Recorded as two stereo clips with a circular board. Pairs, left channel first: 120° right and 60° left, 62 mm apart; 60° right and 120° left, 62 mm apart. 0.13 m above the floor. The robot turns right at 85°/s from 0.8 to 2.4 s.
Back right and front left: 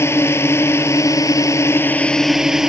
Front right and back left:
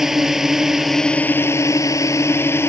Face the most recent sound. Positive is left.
turn(degrees=-20)